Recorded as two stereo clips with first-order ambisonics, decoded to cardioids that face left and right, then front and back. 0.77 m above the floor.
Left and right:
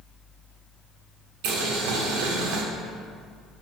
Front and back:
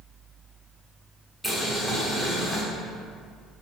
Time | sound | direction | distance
1.4 | boiling | 90° right | 1.4 m